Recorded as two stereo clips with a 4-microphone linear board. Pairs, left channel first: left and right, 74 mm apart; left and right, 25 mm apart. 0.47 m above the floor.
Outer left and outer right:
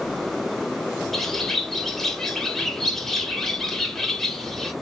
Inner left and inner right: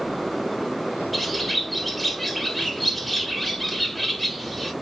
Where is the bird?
5° left (ahead or behind), 0.6 m.